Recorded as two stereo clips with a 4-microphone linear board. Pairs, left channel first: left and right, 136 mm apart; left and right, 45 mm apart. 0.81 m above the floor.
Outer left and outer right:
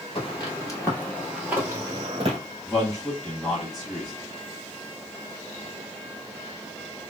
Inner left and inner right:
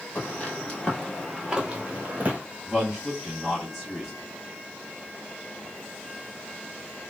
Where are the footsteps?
45° left (ahead or behind), 1.1 m; by 2.4 s 45° right (ahead or behind), 1.1 m.